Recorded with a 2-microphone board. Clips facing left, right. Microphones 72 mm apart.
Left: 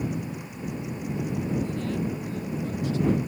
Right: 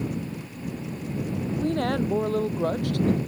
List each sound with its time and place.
1.6 s a woman speaking: 65° right (ahead or behind)